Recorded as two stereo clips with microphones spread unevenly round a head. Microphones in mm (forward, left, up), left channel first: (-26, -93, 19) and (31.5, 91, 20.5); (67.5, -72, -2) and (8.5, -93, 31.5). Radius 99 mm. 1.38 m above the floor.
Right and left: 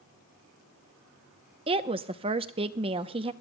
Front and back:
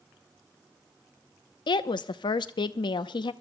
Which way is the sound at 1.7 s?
10° left.